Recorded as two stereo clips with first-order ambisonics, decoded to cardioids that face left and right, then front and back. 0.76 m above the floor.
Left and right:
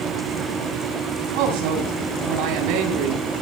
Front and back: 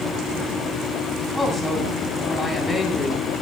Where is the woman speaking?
90° right, 9 m.